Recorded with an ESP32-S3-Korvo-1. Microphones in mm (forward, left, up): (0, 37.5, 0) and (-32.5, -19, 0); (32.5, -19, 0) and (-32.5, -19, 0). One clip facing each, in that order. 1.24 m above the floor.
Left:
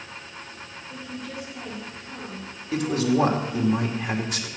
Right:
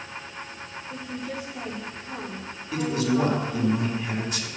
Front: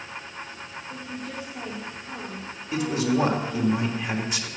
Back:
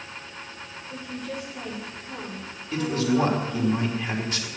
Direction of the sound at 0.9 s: 50° right.